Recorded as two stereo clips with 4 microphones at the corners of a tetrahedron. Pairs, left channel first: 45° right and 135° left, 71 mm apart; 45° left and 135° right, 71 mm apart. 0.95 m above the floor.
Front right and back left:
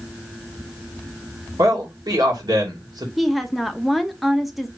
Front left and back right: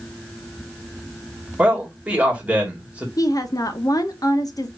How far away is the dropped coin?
I don't hear a dropped coin.